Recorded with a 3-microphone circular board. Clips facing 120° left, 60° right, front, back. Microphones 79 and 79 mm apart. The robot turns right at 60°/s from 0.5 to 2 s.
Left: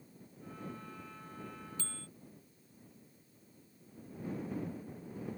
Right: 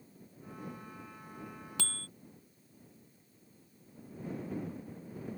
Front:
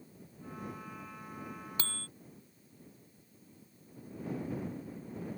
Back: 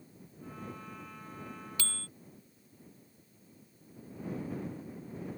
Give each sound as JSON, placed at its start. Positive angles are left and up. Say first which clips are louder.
{"t": 1.8, "sound": "a bicycle bell", "louder": "right 4 dB, front 1 dB", "azimuth_deg": -55}